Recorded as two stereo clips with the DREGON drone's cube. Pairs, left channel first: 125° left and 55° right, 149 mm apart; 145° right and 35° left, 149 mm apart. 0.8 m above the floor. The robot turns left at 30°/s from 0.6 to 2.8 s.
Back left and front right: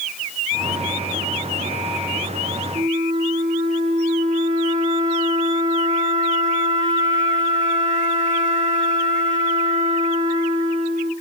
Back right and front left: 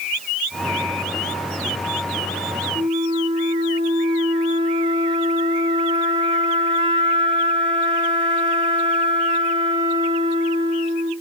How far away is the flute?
About 1.4 m.